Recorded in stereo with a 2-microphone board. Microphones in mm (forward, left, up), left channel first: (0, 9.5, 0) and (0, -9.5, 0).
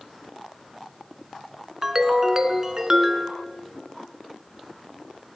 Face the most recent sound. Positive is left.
turn(degrees=-25)  # may be behind; listen again after turning